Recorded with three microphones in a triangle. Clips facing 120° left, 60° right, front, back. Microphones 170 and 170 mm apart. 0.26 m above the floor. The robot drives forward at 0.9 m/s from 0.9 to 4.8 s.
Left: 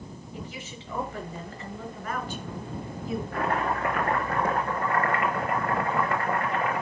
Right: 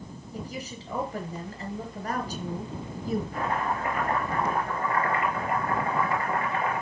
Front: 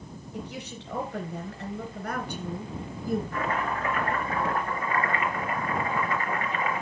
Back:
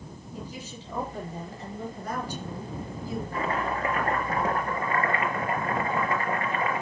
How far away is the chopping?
About 3.5 m.